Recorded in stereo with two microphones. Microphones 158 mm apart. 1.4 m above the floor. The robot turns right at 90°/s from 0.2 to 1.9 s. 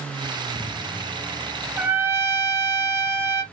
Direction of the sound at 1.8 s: 5° right (ahead or behind).